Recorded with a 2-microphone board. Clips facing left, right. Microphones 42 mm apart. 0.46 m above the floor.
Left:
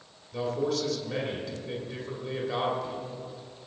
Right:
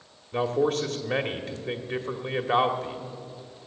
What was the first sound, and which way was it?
A man speaking, 45° right (ahead or behind).